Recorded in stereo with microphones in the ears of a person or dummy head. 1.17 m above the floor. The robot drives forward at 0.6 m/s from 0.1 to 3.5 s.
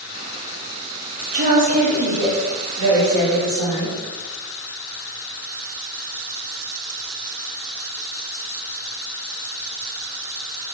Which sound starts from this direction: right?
A woman speaking, at 1.3 s.